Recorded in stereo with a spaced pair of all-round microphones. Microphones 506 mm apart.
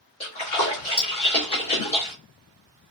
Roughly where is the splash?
Left.